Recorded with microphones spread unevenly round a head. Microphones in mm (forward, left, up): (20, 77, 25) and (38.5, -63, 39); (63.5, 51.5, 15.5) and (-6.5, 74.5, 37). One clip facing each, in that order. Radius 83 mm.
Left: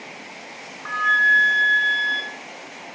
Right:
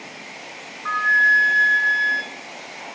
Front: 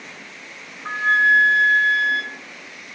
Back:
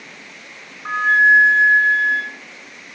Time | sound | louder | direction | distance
0.8 | a flute | right 1 dB, back 3 dB | 165° right | 3 m